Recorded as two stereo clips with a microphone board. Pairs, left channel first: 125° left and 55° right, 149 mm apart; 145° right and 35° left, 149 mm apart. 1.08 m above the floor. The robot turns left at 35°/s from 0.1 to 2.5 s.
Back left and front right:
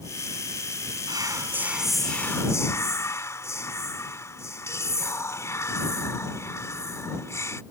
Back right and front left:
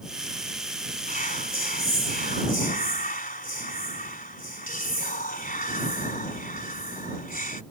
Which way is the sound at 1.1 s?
115° right.